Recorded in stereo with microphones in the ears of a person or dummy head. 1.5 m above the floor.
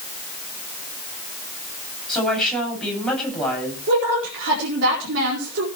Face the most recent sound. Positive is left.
turn(degrees=-55)  # may be behind; listen again after turning